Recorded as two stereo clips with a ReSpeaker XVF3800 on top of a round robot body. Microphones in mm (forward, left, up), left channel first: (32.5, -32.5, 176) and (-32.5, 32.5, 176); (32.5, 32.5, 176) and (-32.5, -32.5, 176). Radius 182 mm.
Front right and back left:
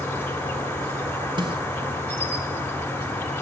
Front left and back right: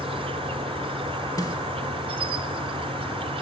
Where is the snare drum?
100° left, 3.5 m.